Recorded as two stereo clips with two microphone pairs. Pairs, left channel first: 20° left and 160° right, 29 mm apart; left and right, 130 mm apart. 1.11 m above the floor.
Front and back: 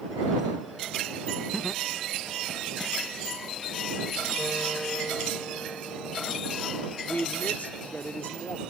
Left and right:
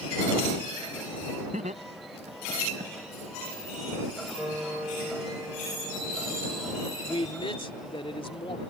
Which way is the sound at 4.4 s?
15° right.